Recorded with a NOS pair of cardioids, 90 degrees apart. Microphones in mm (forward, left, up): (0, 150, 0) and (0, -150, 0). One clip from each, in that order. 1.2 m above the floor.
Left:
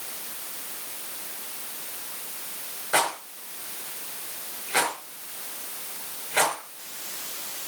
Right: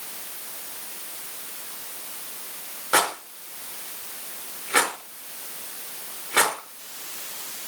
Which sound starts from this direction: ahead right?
A rattle, at 2.9 s.